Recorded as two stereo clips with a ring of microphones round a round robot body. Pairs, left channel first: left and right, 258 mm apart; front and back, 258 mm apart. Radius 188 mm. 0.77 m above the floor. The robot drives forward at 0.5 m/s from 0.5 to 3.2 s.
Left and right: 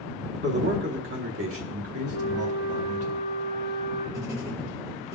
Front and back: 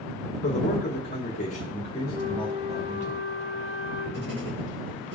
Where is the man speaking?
45° right, 1.8 m; by 3.1 s 100° right, 1.4 m.